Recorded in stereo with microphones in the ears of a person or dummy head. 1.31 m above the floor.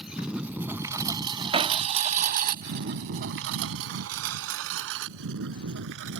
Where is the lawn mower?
Centre (ahead or behind); by 6.2 s 60° right (ahead or behind).